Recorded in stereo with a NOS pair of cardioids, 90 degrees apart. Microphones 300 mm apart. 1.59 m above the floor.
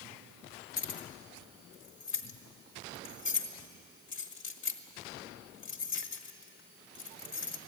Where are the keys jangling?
45° left, 1.9 m.